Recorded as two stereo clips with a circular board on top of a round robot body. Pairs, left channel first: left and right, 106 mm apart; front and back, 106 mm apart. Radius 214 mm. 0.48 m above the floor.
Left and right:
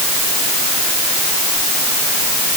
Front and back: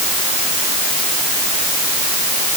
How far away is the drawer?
No drawer in this recording.